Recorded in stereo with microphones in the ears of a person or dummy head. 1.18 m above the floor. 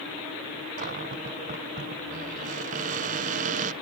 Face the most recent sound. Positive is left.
turn(degrees=-40)  # may be behind; listen again after turning